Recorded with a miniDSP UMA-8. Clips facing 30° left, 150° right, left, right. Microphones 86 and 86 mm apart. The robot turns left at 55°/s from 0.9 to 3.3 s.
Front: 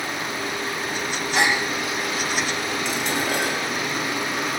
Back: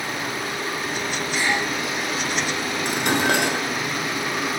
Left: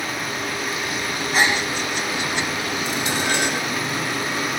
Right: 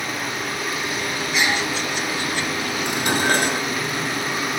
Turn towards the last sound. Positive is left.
turn(degrees=-135)